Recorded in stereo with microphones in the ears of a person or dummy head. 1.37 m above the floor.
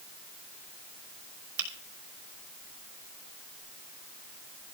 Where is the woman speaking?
No woman speaking in this recording.